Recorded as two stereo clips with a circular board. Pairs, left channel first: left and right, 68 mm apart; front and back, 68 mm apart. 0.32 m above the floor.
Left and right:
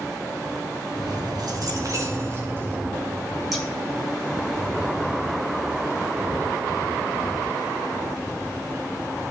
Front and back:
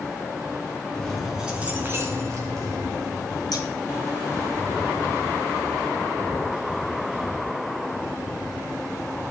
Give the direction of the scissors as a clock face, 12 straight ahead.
12 o'clock.